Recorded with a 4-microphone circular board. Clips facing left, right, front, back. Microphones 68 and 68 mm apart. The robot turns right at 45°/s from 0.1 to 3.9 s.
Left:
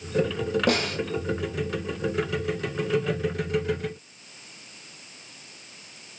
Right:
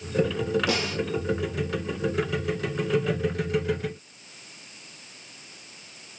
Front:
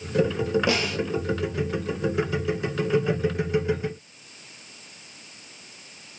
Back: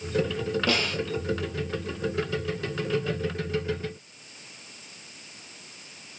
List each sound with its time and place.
0.7 s a snare drum: 70° left, 1.5 m; by 1.0 s 85° left, 1.5 m